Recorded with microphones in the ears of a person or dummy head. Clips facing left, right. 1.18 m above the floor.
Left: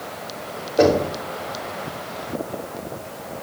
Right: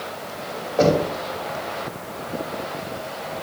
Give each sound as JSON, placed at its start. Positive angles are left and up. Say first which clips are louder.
{"t": 0.8, "sound": "knocking", "louder": "left 1 dB", "side_deg": 25, "distance_m": 3.0}